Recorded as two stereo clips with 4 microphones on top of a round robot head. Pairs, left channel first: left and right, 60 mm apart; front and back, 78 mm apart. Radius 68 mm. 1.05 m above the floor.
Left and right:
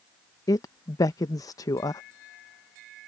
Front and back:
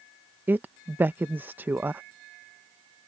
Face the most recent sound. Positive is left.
turn(degrees=110)